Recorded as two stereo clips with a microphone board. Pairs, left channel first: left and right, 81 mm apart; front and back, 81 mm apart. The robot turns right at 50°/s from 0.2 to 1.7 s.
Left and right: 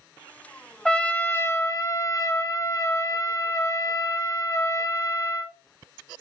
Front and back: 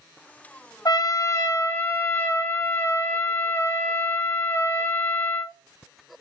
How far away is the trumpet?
About 0.7 m.